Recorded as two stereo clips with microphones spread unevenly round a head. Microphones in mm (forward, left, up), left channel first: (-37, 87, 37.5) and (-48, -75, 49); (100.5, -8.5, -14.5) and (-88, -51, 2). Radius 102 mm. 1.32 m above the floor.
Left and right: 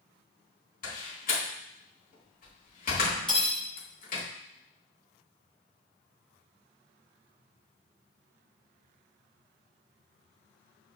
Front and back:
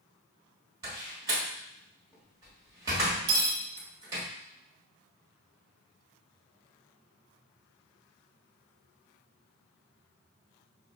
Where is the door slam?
120° left, 1.4 m.